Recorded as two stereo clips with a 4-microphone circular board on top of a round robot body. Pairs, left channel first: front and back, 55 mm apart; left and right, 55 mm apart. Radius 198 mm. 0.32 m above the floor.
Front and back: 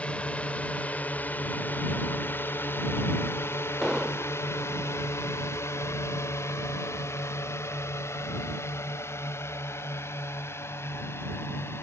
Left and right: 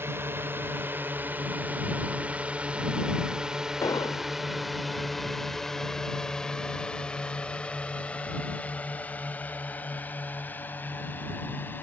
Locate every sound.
0.0 s a drone: 60° right; by 11.8 s 40° left
3.8 s an explosion: 90° left